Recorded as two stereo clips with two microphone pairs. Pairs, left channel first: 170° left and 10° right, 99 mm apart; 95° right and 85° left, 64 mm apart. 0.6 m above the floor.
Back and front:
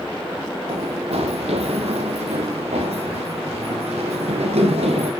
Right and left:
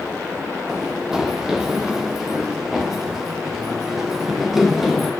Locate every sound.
0.7 s running footsteps: straight ahead, 4 m; by 5.1 s 5° right, 7 m